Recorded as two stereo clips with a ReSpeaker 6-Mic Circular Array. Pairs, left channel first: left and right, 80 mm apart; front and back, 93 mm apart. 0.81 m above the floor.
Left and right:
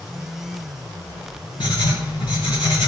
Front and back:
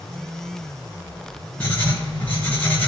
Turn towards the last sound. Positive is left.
turn(degrees=75)